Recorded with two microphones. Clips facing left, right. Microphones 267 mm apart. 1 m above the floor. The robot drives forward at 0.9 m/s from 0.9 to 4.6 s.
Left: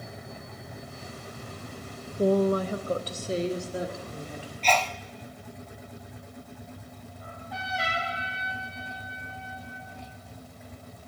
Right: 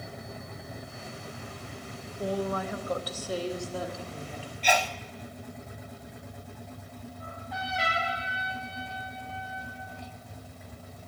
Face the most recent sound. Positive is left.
turn(degrees=0)  # may be behind; listen again after turning